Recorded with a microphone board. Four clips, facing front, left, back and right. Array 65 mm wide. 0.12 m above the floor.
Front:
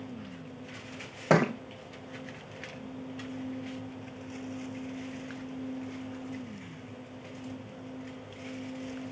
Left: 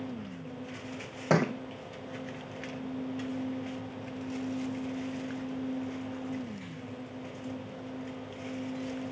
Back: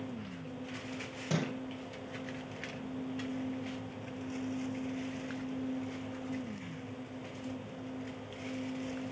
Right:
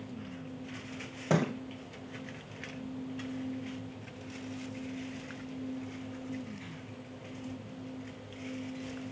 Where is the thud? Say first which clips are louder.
Left 3 dB, front 11 dB; 20° left, 0.7 m.